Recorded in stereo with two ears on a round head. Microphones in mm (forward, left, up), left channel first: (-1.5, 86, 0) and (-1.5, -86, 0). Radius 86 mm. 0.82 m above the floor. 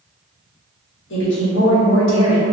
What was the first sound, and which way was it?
A woman speaking, 70° left (ahead or behind).